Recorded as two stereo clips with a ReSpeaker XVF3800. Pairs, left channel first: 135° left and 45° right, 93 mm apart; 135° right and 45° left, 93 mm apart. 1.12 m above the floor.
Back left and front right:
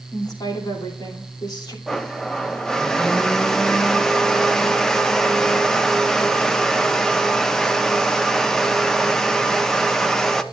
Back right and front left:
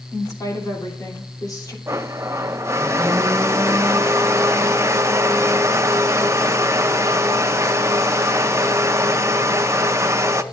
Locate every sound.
0.1 s a woman speaking: 175° left, 2.5 m
1.9 s a blender: 55° left, 0.6 m